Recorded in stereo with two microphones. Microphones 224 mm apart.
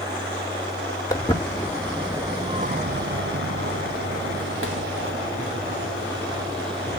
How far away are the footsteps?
About 1.2 m.